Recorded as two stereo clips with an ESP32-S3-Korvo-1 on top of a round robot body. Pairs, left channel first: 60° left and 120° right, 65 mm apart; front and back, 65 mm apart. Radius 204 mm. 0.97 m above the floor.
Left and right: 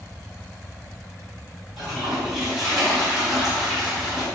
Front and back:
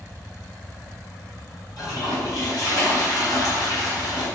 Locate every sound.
1.8 s a toilet flushing: 30° right, 2.5 m